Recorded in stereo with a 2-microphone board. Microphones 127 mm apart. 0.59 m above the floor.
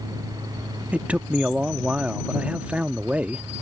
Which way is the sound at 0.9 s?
10° right (ahead or behind).